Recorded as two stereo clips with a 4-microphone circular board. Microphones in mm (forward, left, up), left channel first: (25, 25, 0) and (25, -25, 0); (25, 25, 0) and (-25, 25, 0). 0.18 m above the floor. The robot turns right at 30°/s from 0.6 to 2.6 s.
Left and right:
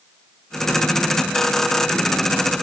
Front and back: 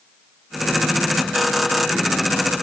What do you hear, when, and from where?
Only background noise.